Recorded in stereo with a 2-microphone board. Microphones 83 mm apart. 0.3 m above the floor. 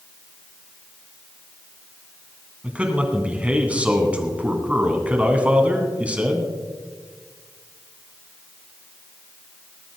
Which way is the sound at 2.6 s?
15° right (ahead or behind).